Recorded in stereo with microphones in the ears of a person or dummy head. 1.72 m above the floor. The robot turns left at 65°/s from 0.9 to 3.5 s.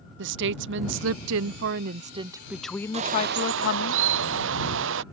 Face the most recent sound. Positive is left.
turn(degrees=-70)